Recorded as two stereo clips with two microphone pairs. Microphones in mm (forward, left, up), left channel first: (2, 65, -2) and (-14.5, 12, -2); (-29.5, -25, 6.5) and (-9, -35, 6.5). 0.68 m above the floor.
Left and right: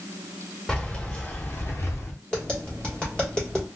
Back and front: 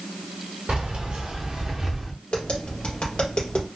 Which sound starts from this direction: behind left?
Tapping, at 2.3 s.